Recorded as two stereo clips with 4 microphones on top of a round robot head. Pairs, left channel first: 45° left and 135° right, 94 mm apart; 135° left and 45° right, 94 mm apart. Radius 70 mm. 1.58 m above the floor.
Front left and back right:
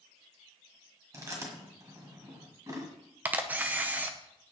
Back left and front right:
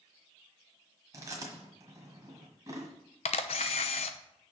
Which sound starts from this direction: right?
Chewing, at 1.1 s.